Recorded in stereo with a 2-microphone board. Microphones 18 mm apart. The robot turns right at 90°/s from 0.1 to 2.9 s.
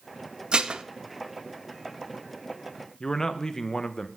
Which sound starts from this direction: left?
A man speaking, at 3.0 s.